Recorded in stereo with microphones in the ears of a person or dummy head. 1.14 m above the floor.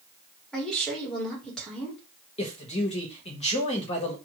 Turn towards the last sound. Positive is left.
turn(degrees=35)  # may be behind; listen again after turning